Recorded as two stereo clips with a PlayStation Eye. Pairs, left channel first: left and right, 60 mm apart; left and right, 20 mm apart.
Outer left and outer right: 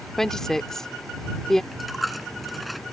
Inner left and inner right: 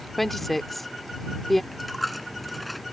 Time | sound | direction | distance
0.2 | a woman speaking | 10° left (ahead or behind) | ?
1.7 | a dropped coin | centre (ahead or behind) | ?